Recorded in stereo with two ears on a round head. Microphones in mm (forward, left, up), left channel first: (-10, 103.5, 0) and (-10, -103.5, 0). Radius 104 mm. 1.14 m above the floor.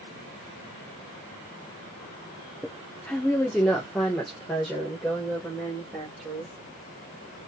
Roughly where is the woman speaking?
Centre.